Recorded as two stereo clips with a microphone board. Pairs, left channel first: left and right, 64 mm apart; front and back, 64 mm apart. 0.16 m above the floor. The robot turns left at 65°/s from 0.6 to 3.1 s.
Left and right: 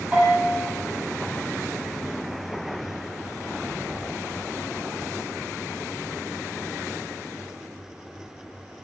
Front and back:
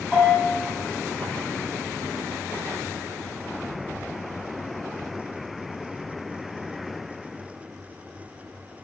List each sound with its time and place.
0.1 s a bell: 125° right, 1.4 m